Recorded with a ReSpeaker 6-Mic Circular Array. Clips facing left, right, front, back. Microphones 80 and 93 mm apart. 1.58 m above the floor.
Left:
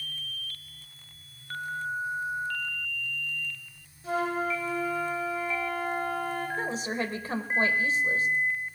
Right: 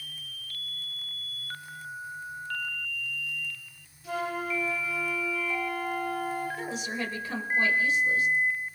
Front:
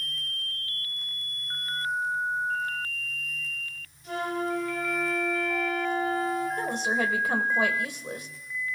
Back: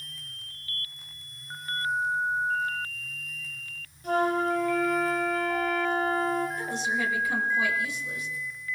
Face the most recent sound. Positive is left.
turn(degrees=35)